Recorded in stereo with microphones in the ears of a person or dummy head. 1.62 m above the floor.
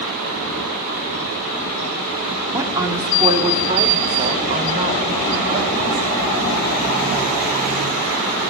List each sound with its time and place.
2.5 s a woman speaking: 10° right (ahead or behind), 3.5 m; by 6.1 s 45° right (ahead or behind), 7.5 m